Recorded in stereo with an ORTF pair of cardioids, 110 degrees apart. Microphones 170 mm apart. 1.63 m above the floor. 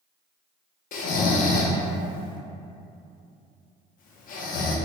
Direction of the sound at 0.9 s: 55° left.